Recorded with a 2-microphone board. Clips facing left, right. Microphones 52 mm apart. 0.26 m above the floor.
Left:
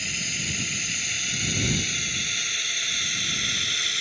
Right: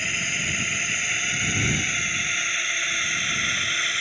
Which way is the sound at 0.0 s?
30° right (ahead or behind).